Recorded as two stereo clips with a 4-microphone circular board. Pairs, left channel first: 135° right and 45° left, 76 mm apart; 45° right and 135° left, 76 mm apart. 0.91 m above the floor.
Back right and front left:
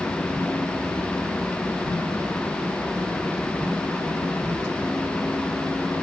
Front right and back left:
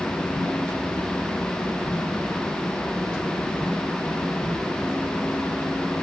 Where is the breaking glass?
No breaking glass in this recording.